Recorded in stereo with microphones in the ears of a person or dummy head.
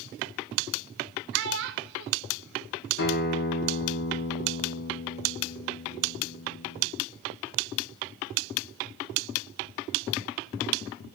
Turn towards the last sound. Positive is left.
turn(degrees=65)  # may be behind; listen again after turning